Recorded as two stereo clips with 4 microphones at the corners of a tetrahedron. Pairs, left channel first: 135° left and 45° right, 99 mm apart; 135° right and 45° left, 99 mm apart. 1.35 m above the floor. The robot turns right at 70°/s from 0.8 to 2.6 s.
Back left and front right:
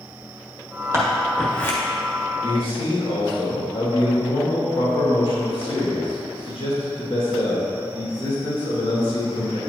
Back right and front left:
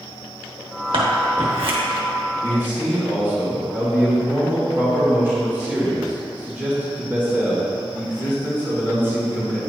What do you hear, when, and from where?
0.9 s scissors: 15° left, 1.3 m; by 1.8 s 75° left, 1.3 m
2.4 s a man speaking: 100° left, 2 m; by 9.6 s 115° left, 2 m